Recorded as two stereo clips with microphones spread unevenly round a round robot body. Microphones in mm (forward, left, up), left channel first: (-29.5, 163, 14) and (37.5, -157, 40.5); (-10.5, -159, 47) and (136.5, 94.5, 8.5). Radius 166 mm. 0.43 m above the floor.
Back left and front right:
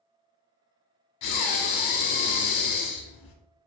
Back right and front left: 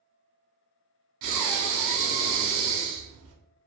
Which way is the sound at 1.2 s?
85° left.